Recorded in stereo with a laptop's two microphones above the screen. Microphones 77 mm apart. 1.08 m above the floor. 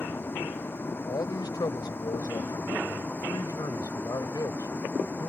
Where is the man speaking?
65° left (ahead or behind).